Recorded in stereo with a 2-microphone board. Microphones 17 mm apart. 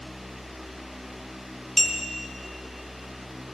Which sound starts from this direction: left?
A clink, at 1.8 s.